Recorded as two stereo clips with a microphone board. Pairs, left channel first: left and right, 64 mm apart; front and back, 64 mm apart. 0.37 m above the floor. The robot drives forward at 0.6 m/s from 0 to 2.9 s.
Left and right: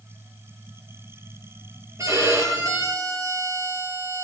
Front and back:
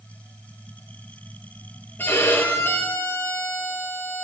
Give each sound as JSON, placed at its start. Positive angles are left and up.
{"t": 2.0, "sound": "a violin", "azimuth_deg": -55, "distance_m": 5.5}